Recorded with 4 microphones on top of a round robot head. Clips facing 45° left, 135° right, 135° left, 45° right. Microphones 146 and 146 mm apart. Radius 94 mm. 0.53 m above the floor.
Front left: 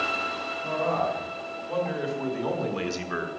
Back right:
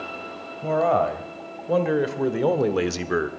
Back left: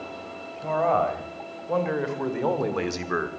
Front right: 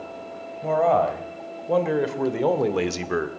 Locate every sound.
0.6 s a man speaking: 105° right, 2.5 m; by 3.3 s 110° right, 1.1 m